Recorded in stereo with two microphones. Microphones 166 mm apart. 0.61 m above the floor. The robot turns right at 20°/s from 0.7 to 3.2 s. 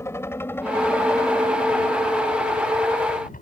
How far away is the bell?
I don't hear a bell.